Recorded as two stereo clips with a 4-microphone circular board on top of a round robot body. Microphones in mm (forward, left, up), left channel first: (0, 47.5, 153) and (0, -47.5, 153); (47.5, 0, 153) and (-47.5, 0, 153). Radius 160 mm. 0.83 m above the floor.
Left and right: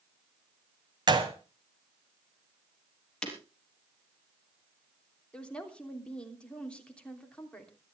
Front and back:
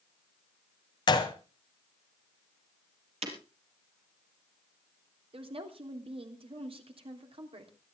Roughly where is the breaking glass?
Behind.